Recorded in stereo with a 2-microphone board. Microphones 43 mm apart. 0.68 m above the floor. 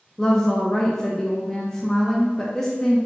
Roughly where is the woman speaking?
Centre.